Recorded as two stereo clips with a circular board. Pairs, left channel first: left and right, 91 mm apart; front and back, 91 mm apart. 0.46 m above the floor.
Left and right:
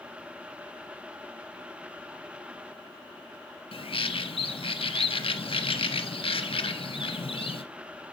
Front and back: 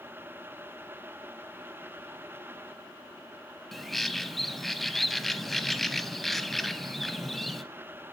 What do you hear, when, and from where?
3.7 s a bird: 90° left, 0.6 m